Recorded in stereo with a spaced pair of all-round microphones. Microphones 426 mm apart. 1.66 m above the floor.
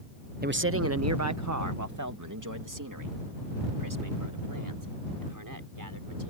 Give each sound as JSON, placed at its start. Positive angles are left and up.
{"t": 0.4, "sound": "a man speaking", "side_deg": -20}